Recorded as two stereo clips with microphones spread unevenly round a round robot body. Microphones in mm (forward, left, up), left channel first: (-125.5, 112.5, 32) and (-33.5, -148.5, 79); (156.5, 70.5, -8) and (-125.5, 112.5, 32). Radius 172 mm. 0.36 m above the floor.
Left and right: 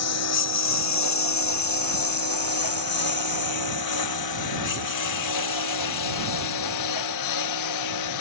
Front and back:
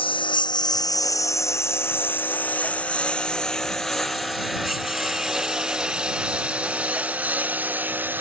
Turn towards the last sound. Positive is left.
turn(degrees=90)